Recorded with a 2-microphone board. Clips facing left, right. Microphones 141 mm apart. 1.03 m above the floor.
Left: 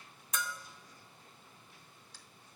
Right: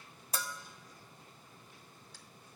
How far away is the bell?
About 0.6 m.